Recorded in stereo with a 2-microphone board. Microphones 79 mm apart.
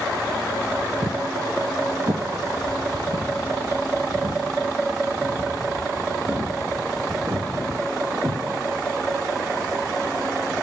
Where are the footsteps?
50° right (ahead or behind), 0.6 m; by 8.4 s 65° right (ahead or behind), 5 m.